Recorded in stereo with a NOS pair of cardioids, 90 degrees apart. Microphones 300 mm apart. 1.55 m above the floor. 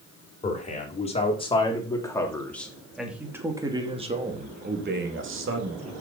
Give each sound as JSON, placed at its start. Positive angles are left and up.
{"t": 0.4, "sound": "a man speaking", "azimuth_deg": 25, "distance_m": 4.5}